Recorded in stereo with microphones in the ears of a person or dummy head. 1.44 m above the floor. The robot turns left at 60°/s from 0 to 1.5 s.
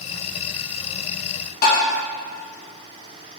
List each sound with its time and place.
1.6 s tapping: 60° left (ahead or behind), 2 m